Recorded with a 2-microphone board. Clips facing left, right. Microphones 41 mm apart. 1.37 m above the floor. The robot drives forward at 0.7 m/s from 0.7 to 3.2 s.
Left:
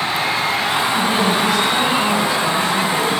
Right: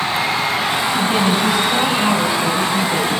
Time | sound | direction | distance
0.9 | a woman speaking | 5° right (ahead or behind) | 9 m